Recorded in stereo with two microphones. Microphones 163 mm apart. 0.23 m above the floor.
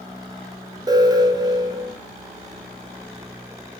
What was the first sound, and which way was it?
An alarm, 25° right (ahead or behind).